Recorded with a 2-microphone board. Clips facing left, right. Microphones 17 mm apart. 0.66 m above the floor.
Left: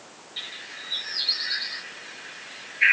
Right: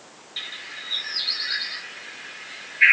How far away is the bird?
About 1.3 m.